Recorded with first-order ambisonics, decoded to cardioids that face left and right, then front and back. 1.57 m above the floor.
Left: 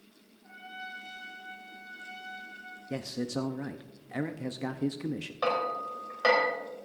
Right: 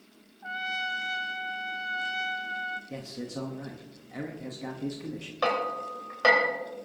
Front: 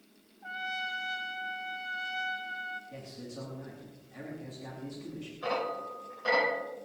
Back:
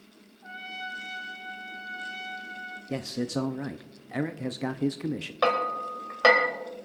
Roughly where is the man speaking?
Behind.